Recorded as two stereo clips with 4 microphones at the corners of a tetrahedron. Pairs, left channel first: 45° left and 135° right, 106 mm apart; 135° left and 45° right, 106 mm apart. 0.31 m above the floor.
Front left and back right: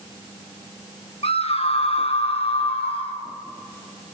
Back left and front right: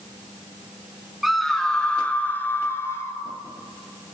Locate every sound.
1.2 s a scream: 45° left, 2 m; by 3.2 s 70° left, 3.5 m